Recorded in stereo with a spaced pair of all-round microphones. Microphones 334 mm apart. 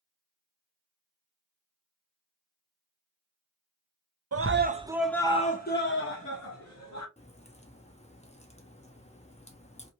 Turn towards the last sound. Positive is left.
turn(degrees=20)  # may be behind; listen again after turning